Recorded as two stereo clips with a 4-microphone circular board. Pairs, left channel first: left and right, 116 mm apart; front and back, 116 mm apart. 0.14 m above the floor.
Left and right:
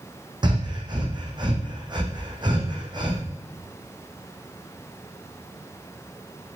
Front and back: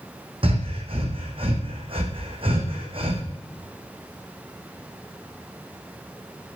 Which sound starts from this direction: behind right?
Breathing, at 0.4 s.